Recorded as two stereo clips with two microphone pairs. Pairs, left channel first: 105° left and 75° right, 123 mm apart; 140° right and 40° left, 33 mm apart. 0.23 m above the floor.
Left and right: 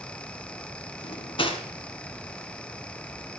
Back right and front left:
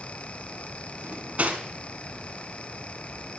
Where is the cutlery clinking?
70° left, 1.5 m.